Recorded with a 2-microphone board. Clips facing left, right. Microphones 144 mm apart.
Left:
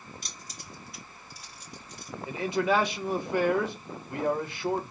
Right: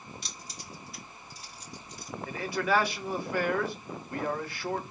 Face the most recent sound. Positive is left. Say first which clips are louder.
# left 3 dB
turn(degrees=20)  # may be behind; listen again after turning